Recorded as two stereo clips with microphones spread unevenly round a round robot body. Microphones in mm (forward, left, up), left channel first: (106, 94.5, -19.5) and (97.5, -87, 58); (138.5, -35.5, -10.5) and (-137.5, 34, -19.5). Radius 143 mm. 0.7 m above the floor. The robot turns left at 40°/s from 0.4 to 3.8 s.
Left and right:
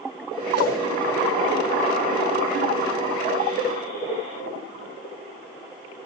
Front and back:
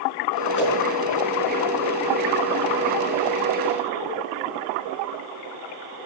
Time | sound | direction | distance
0.5 | a whoosh | 65° right | 6 m